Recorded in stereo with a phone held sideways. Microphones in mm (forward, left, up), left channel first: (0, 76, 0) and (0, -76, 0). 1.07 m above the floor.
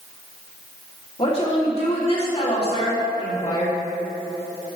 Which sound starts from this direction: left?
A woman speaking, at 1.2 s.